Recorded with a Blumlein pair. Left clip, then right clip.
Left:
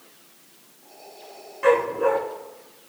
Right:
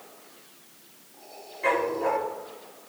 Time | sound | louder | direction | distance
1.6 | a dog barking | left 5 dB | 40° left | 3.5 m